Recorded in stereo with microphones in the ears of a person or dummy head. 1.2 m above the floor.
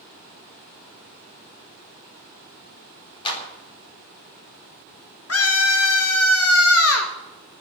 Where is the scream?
70° left (ahead or behind), 1.7 m.